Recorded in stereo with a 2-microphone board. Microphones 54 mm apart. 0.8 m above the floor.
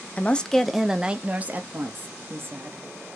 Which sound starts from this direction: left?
A woman speaking, at 0.2 s.